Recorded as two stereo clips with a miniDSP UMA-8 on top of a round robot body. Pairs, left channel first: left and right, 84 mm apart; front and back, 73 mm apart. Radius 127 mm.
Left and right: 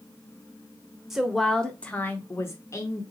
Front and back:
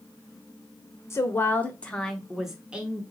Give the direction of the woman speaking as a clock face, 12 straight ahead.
12 o'clock.